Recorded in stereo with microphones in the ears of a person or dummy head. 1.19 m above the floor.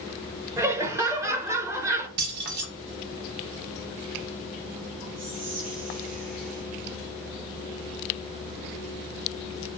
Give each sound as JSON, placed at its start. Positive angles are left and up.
{"t": 0.6, "sound": "laughter", "side_deg": -20, "distance_m": 0.5}
{"t": 2.2, "sound": "keys jangling", "side_deg": -55, "distance_m": 0.9}
{"t": 5.2, "sound": "whispering", "side_deg": -45, "distance_m": 0.7}